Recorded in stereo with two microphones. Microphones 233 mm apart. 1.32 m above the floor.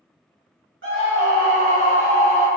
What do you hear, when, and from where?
0.8 s a scream: 60° right (ahead or behind), 0.9 m